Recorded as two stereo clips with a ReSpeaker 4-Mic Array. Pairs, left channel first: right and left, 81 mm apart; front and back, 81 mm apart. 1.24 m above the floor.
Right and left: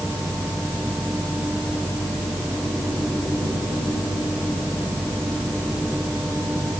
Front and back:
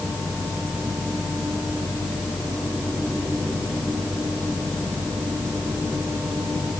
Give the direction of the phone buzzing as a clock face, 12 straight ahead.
No phone buzzing in this recording.